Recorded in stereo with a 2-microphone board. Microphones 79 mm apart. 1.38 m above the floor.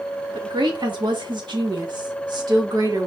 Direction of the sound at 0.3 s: 85° right.